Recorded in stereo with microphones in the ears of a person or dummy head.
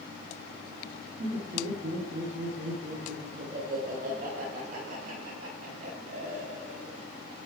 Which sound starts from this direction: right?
Laughter, at 1.2 s.